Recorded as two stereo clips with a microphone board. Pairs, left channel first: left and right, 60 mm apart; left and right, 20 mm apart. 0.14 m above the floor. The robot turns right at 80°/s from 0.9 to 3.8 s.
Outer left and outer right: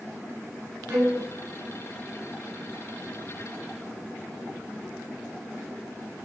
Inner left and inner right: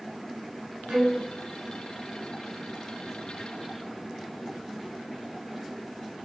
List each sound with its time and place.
0.9 s a violin: 50° right (ahead or behind), 0.9 m; by 1.2 s 45° right (ahead or behind), 0.9 m